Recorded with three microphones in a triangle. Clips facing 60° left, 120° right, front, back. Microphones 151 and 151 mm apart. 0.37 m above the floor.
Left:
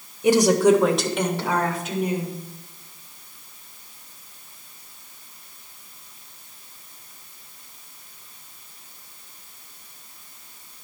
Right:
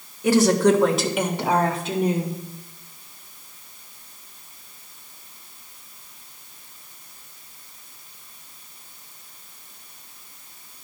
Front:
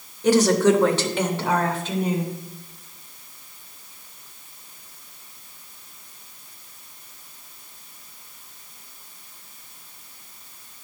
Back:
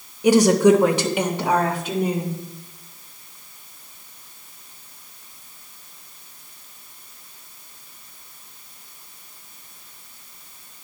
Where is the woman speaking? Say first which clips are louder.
Left 1 dB, back 3 dB; 110° left, 1.0 m; by 2.4 s 105° right, 1.1 m.